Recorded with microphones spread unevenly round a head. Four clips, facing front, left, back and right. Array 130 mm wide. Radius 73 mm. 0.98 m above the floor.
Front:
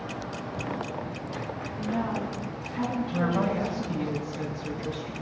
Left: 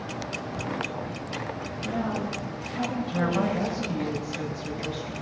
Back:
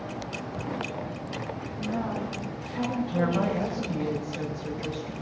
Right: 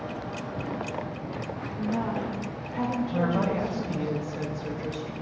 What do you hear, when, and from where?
1.8 s a woman speaking: 155° right, 4.5 m
3.1 s a woman speaking: 140° right, 4.5 m